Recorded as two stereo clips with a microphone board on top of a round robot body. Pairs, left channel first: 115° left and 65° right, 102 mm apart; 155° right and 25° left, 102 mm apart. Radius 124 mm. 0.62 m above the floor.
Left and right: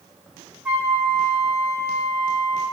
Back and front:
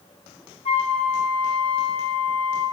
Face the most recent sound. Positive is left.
turn(degrees=-155)